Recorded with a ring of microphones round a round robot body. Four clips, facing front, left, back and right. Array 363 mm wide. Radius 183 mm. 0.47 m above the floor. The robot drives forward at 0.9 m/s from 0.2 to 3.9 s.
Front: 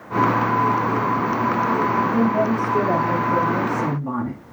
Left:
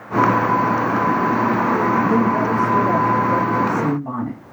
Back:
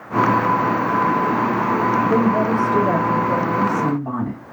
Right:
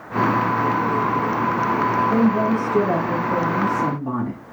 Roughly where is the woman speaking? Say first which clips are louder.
Left 1 dB, back 2 dB; behind left.